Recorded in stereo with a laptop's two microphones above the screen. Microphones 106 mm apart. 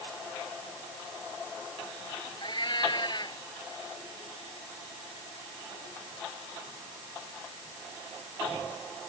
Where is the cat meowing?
45° left (ahead or behind).